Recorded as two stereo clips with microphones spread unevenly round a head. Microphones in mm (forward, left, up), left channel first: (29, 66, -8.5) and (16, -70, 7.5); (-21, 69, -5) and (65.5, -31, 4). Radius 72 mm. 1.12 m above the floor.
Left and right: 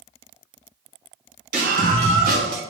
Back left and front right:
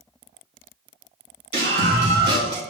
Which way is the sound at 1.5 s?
75° right.